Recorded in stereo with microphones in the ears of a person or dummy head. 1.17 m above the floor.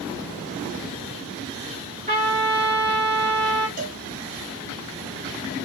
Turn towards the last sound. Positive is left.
turn(degrees=-45)  # may be behind; listen again after turning